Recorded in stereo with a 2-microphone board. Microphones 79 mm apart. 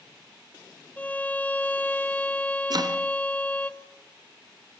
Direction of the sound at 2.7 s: 55° right (ahead or behind).